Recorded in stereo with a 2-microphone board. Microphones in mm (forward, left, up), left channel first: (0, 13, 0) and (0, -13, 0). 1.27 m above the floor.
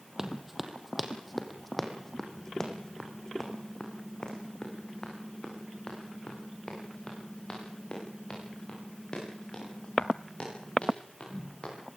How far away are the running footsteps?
About 2.5 m.